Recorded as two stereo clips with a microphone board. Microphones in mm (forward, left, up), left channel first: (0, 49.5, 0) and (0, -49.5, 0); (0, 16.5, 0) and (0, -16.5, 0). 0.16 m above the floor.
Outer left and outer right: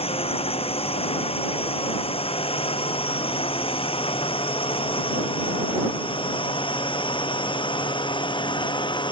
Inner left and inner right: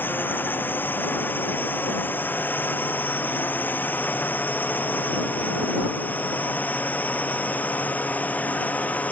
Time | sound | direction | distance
0.0 | a drone | 80° left | ?